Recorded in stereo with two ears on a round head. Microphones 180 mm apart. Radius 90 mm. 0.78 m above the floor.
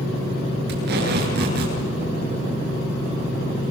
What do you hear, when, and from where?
0.7 s tape being pulled: 55° right (ahead or behind), 8 m